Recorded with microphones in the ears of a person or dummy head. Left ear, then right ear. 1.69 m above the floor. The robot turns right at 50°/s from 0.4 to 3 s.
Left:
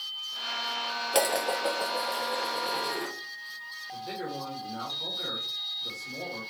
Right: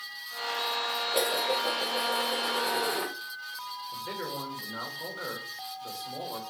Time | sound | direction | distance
1.1 | dishes clattering | 120° left | 1.2 m
3.9 | a man speaking | 35° right (ahead or behind) | 2.5 m